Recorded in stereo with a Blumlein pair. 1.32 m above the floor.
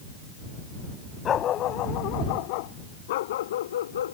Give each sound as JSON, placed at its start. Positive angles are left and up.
{"t": 1.2, "sound": "a dog barking", "azimuth_deg": 25}